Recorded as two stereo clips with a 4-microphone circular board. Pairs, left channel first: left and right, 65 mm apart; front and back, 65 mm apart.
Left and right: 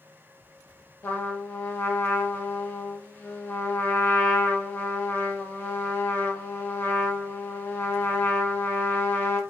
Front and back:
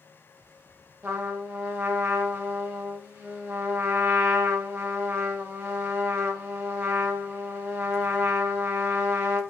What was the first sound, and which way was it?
A trumpet, 135° left.